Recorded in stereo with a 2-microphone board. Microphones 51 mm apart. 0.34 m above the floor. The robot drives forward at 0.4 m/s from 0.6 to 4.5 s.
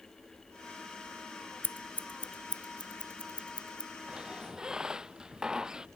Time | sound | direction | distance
1.6 | scissors | 40° left (ahead or behind) | ?
4.1 | a squeak | 15° right (ahead or behind) | ?